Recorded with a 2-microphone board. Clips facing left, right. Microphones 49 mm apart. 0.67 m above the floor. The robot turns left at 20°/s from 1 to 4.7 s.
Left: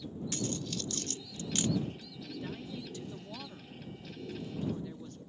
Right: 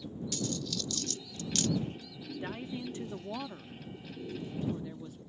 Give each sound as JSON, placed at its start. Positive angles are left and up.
{"t": 0.3, "sound": "a dropped coin", "side_deg": 35}
{"t": 2.4, "sound": "a woman speaking", "azimuth_deg": -125}